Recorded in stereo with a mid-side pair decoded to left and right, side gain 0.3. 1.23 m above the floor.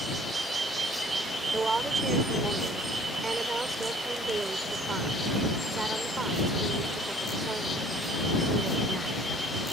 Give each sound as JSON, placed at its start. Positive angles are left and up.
{"t": 1.5, "sound": "a woman speaking", "azimuth_deg": -50}